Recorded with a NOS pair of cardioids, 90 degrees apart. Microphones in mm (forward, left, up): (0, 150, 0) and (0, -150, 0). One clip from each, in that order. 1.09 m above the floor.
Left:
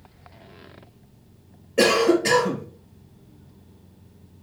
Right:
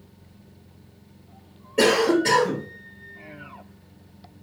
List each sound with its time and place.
1.8 s a cough: 20° left, 1.2 m